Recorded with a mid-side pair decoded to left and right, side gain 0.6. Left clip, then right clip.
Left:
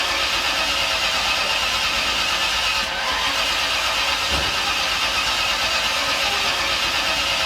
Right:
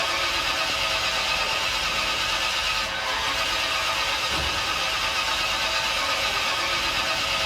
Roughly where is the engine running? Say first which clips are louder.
Left 4 dB; ahead left.